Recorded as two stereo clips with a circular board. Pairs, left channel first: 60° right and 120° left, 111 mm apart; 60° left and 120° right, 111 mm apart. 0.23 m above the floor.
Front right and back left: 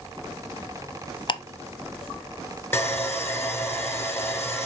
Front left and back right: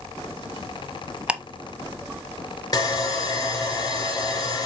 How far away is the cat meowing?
I don't hear a cat meowing.